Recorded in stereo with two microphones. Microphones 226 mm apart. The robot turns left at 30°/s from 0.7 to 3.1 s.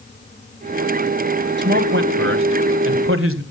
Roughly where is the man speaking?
Ahead right.